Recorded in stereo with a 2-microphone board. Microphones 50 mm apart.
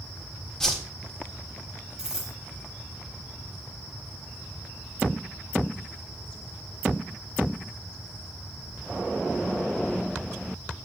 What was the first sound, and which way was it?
A whoosh, 10° left (ahead or behind).